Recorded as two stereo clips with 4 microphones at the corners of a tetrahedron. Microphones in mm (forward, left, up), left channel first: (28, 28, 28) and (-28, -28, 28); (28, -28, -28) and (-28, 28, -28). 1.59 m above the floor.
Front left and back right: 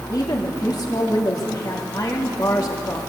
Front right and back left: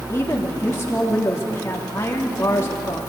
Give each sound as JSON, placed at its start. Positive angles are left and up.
{"t": 0.1, "sound": "a woman speaking", "azimuth_deg": 10, "distance_m": 3.0}